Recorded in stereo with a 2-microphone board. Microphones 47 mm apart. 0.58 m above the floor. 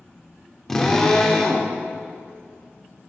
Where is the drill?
10° left (ahead or behind), 1.3 m.